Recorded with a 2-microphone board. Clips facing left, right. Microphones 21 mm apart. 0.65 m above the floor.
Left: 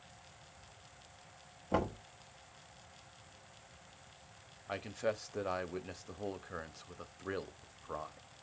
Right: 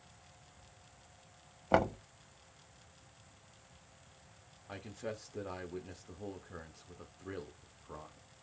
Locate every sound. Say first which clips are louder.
1.7 s knocking: right 5 dB; 45° right (ahead or behind), 1.0 m
4.7 s a man speaking: left 6 dB; 30° left (ahead or behind), 0.7 m